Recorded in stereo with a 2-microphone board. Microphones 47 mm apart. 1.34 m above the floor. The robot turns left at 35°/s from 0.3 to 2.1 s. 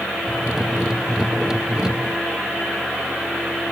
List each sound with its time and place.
Only background noise.